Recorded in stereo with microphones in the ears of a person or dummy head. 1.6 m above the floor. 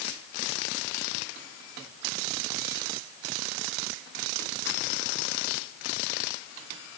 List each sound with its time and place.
Only background noise.